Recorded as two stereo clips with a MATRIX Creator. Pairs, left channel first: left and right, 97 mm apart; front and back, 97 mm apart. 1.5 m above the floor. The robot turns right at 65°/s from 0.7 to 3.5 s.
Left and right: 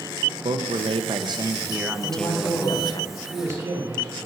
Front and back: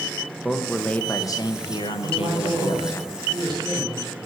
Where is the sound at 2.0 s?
110° left, 3.5 m; by 4.2 s 150° right, 3.5 m.